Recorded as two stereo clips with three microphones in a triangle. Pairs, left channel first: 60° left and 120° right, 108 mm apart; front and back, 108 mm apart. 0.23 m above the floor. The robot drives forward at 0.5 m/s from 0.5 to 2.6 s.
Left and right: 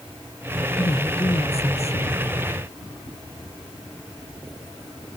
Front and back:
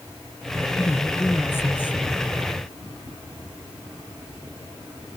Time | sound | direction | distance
0.8 | a woman speaking | 65° left | ?